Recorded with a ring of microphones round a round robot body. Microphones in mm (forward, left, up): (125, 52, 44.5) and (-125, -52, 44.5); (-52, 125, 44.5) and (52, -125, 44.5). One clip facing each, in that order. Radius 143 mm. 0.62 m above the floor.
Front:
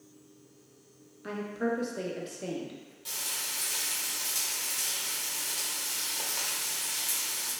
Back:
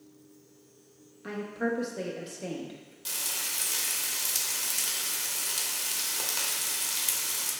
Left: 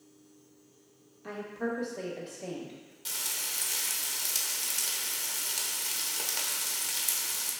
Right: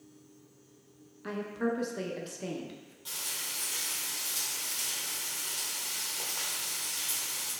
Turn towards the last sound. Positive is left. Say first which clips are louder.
# back 2 dB, left 1 dB
turn(degrees=145)